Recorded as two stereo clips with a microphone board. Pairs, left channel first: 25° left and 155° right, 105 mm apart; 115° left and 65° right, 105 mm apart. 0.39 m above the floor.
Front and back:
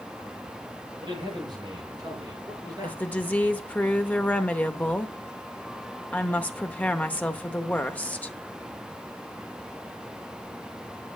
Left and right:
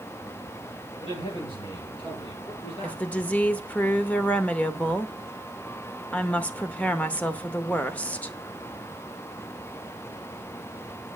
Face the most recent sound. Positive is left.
turn(degrees=65)